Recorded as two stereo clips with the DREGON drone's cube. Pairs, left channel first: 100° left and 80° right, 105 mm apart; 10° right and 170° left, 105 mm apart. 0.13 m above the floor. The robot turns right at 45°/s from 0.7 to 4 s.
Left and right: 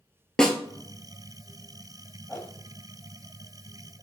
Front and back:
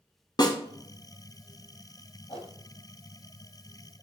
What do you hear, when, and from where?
0.4 s a snare drum: 20° left, 0.7 m
2.3 s a whoosh: 20° left, 1.2 m; by 2.5 s 30° left, 1.2 m